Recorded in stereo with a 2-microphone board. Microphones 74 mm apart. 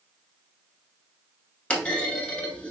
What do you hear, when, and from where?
1.7 s a clunk: 15° left (ahead or behind), 0.7 m